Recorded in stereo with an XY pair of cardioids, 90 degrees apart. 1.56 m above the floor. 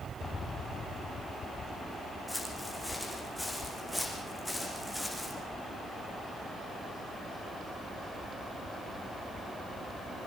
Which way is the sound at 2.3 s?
5° left.